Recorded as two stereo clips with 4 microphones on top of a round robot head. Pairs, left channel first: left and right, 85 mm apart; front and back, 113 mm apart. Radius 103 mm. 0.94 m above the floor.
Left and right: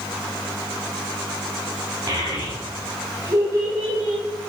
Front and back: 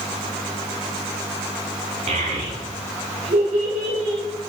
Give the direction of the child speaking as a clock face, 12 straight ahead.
5 o'clock.